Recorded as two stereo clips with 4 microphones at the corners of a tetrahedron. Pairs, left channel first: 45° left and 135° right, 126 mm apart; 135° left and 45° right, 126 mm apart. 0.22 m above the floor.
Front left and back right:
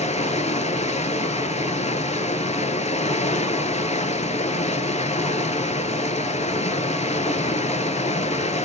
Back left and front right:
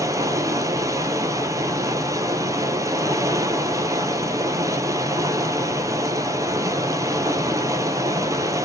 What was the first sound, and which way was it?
Running water, 20° left.